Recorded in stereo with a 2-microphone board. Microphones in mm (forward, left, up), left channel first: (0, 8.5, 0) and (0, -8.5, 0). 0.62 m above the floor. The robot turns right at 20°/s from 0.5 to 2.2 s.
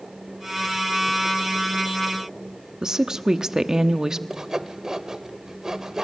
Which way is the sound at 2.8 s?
35° right (ahead or behind).